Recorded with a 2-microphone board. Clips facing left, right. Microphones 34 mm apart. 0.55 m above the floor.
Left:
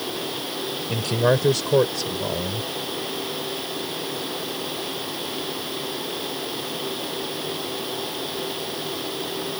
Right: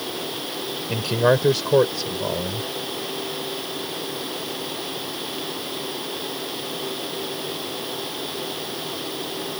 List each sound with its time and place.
0.9 s a man speaking: 10° right (ahead or behind)